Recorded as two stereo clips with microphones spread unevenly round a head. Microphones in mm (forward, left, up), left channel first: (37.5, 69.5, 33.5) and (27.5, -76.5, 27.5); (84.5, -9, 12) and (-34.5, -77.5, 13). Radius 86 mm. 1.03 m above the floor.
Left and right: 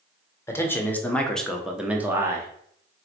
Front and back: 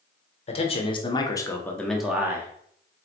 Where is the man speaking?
15° left, 1.1 m; by 2.5 s 115° right, 0.8 m.